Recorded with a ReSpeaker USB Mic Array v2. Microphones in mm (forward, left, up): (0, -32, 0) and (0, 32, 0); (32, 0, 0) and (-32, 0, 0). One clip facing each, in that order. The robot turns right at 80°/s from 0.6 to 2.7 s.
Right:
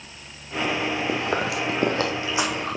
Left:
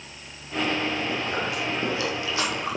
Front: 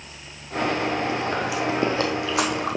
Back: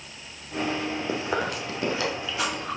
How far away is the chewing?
About 1.9 m.